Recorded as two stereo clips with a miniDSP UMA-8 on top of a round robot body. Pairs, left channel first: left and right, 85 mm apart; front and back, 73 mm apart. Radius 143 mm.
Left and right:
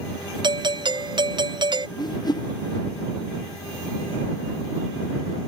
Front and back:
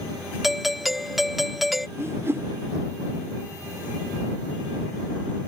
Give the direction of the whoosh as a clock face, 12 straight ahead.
8 o'clock.